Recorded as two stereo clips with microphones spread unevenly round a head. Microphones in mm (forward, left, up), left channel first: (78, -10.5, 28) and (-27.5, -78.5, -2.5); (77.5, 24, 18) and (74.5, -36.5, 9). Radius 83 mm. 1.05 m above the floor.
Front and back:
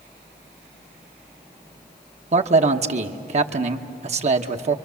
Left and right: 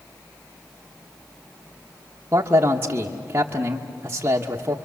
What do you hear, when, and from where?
2.3 s a man speaking: 150° right, 1.1 m